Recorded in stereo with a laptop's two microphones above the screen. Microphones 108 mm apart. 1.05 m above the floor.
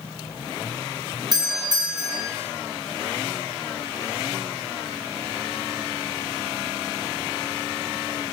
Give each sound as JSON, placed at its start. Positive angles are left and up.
{"t": 1.3, "sound": "a doorbell", "side_deg": -40, "distance_m": 0.9}